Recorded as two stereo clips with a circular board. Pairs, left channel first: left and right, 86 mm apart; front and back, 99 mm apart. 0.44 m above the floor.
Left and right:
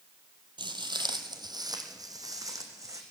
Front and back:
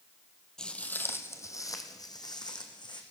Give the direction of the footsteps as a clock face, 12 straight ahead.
3 o'clock.